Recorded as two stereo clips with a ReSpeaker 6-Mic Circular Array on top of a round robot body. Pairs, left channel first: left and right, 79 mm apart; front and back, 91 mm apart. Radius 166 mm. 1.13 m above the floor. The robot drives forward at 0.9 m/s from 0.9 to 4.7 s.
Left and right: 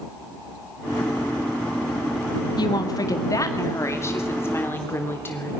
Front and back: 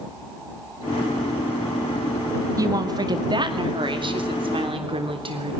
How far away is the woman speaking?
About 1.9 m.